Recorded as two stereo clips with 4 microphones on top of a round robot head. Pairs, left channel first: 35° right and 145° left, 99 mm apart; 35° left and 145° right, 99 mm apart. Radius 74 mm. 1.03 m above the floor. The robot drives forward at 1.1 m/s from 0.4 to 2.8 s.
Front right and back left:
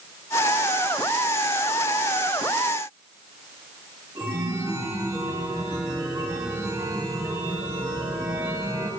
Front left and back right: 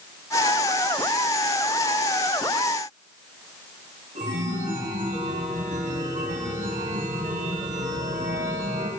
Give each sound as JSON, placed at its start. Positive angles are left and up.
{"t": 4.2, "sound": "a chime", "azimuth_deg": -160, "distance_m": 2.0}